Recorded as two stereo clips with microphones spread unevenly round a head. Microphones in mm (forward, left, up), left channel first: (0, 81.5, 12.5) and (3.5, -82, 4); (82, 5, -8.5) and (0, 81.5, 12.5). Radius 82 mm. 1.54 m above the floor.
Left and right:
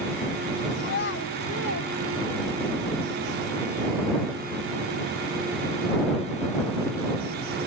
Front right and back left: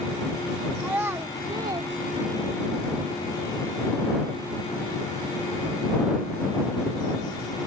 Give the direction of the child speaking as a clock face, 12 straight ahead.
10 o'clock.